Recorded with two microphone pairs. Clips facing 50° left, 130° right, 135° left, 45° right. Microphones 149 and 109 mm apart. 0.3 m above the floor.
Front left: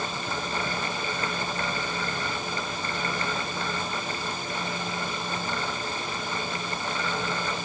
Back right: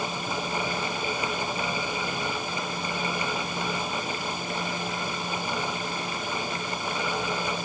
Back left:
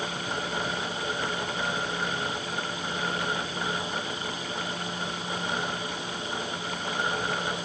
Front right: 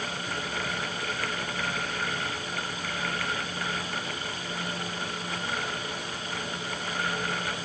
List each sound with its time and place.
Only background noise.